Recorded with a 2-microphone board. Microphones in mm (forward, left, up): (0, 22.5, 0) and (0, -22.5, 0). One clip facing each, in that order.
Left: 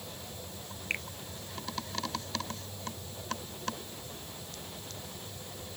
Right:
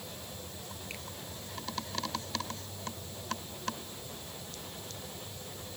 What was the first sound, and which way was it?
A finger snap, 50° left (ahead or behind).